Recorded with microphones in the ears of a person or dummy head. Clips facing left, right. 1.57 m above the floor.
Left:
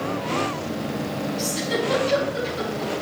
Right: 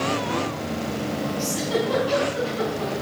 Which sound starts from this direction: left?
A giggle, at 1.4 s.